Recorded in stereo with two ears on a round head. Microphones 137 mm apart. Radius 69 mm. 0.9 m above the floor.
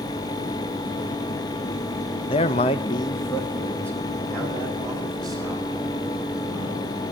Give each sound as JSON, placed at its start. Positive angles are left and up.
{"t": 2.3, "sound": "a man speaking", "side_deg": 35, "distance_m": 0.6}